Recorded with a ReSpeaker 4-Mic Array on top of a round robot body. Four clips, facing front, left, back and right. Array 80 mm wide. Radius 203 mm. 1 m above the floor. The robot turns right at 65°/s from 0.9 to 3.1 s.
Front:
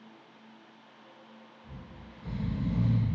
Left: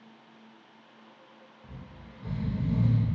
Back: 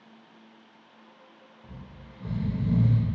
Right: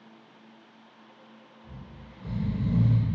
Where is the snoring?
120° left, 0.7 m; by 3.1 s 145° right, 0.7 m.